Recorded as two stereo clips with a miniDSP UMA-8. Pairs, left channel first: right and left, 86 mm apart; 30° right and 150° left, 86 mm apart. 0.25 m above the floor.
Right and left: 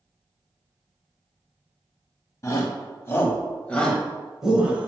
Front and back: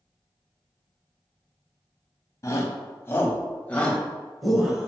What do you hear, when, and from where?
2.4 s a shout: 65° right, 1.6 m; by 4.9 s 90° left, 1.2 m